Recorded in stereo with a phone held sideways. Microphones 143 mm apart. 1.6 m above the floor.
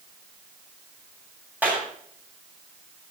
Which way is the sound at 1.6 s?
10° right (ahead or behind).